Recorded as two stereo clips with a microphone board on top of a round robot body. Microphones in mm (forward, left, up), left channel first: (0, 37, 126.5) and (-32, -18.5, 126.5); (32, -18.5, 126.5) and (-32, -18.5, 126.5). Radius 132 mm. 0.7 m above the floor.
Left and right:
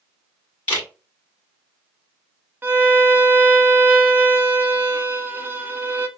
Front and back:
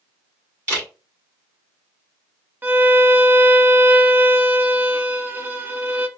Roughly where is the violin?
Behind right.